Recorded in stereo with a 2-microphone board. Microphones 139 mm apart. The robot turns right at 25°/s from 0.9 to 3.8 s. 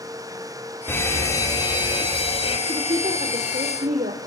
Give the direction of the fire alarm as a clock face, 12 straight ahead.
11 o'clock.